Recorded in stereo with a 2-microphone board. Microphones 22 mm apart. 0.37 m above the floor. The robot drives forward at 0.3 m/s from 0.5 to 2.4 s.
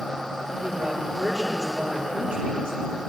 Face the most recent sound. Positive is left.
turn(degrees=-65)  # may be behind; listen again after turning